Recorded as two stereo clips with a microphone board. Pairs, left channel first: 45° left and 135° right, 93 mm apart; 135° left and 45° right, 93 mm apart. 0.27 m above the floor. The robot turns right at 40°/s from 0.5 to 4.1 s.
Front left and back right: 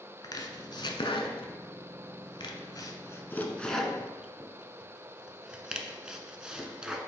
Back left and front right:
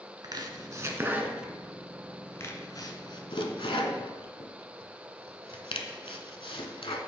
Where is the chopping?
Straight ahead, 0.8 m; by 7.0 s 145° left, 0.8 m.